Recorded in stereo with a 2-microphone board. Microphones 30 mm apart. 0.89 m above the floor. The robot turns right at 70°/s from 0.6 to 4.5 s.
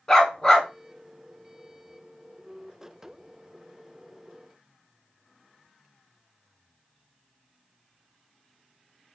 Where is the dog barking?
25° left (ahead or behind), 1.0 m; by 0.7 s 30° left (ahead or behind), 1.0 m.